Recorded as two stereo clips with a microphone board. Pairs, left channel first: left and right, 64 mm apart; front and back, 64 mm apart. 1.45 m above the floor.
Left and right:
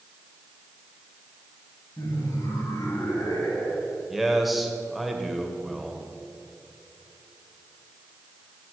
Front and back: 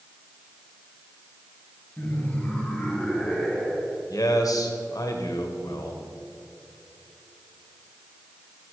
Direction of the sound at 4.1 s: 5° right.